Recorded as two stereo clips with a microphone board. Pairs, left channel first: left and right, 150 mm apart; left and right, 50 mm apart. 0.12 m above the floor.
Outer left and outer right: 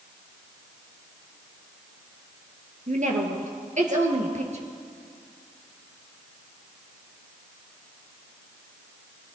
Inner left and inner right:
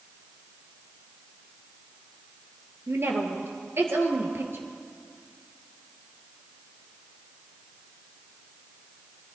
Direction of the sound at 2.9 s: 55° right (ahead or behind).